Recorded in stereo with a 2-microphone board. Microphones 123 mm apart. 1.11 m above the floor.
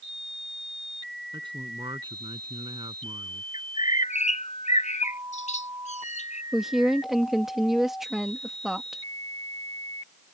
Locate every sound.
1.3 s a man speaking: 40° right (ahead or behind)
3.5 s a bird: 80° left
6.5 s a woman speaking: 5° right (ahead or behind)